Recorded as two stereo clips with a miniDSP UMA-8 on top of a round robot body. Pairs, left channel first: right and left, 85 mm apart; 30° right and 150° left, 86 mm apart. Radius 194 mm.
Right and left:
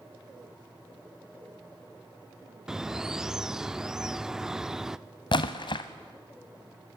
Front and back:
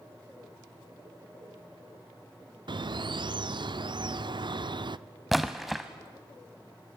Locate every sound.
2.7 s a bird: 175° left, 0.7 m
5.3 s a splash: 120° right, 0.5 m